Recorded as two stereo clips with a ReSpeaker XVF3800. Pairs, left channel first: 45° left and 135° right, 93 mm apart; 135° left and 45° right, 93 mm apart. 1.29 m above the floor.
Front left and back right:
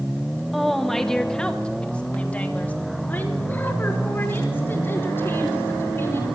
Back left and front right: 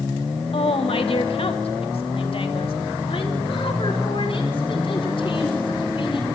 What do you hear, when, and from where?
0.5 s a woman speaking: 135° left, 1.7 m; by 6.3 s 110° left, 5 m